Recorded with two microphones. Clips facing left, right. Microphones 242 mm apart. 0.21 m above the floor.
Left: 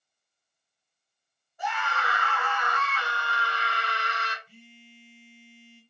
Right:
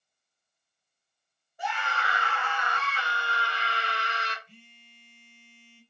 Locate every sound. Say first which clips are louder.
1.6 s a scream: left 1 dB; 25° right (ahead or behind), 1.6 m
4.5 s a phone buzzing: left 5 dB; 10° left (ahead or behind), 1.6 m